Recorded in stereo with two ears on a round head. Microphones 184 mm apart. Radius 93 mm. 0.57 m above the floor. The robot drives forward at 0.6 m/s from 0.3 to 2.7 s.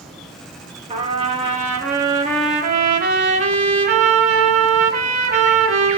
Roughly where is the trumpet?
Right.